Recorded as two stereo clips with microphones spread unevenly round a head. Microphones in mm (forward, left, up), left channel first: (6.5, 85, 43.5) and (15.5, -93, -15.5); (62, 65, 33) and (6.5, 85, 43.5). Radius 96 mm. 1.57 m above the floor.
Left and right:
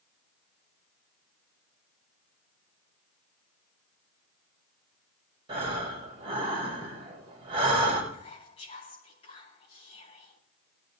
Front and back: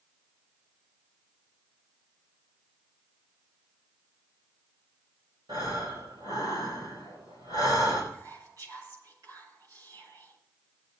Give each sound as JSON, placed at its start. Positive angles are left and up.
{"t": 5.5, "sound": "breathing", "azimuth_deg": -155, "distance_m": 5.0}
{"t": 8.1, "sound": "whispering", "azimuth_deg": 155, "distance_m": 9.0}